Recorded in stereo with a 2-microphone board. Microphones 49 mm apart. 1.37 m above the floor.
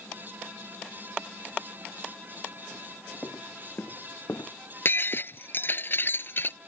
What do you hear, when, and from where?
3.2 s footsteps: 45° left (ahead or behind); by 4.5 s 55° left (ahead or behind)
4.8 s breaking glass: 45° left (ahead or behind)